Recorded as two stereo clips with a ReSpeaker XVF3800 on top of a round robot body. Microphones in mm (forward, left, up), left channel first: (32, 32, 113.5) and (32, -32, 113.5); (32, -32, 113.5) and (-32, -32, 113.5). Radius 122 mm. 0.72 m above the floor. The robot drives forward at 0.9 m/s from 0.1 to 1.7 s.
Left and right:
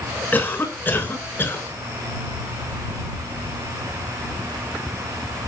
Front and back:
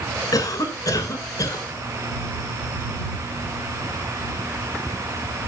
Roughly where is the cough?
Ahead left.